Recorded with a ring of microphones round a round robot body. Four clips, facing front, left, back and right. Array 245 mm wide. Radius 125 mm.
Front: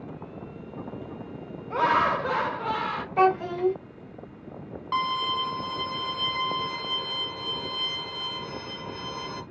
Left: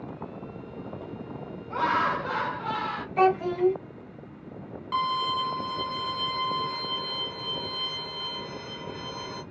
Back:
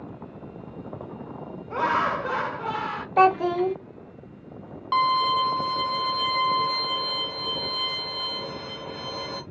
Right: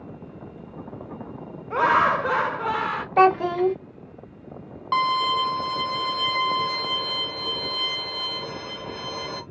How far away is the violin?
About 0.7 m.